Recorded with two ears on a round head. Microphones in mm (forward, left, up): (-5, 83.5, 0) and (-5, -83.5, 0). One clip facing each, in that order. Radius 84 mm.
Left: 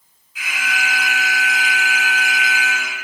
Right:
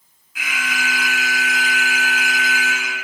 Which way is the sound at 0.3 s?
55° right (ahead or behind).